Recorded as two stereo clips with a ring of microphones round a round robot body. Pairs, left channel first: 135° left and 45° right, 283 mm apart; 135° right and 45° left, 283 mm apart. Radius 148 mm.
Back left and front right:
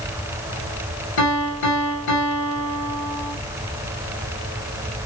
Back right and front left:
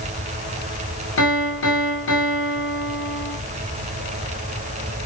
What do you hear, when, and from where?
1.2 s a piano: straight behind, 1.4 m